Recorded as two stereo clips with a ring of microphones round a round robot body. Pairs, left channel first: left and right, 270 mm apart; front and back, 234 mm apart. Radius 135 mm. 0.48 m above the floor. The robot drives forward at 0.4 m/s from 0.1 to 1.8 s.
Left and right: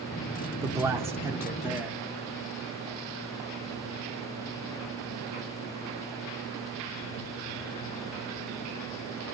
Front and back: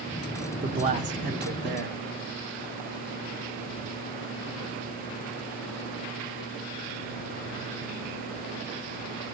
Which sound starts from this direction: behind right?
A man speaking, at 0.6 s.